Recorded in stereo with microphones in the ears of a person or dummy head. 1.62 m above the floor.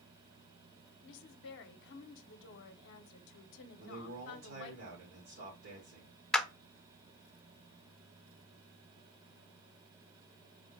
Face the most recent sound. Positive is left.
turn(degrees=0)  # may be behind; listen again after turning